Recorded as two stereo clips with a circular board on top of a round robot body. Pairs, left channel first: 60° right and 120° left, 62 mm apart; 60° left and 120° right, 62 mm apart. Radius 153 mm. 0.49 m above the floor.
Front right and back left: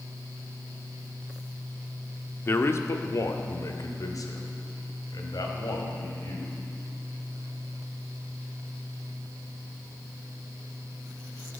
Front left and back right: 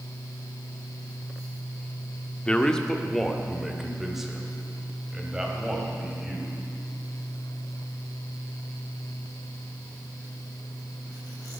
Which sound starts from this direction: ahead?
A man speaking, at 2.5 s.